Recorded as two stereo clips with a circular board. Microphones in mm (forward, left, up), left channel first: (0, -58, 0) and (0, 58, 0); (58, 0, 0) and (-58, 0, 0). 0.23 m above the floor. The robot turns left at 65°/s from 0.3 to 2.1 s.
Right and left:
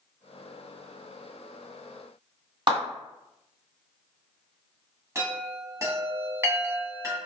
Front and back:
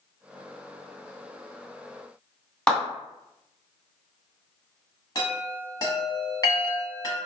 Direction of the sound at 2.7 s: 75° left.